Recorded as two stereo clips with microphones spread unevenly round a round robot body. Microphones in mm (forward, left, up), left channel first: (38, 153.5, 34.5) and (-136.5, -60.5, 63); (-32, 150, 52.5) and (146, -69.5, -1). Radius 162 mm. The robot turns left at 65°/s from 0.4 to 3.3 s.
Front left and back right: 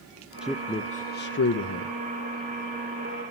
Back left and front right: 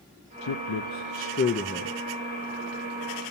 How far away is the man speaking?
About 0.8 m.